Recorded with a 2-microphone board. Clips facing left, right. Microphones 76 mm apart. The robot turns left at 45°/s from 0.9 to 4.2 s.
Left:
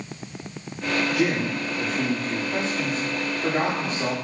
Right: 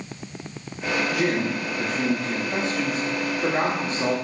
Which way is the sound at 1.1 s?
15° right.